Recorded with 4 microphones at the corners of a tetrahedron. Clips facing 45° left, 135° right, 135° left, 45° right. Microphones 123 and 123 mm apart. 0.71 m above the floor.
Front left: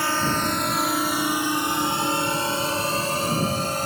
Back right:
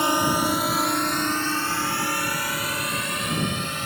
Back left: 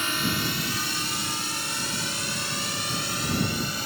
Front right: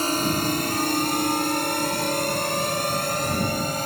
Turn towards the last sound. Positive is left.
turn(degrees=-5)